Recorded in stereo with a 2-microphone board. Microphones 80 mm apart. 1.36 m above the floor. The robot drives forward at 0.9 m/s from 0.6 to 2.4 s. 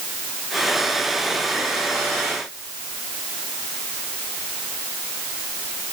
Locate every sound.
Only background noise.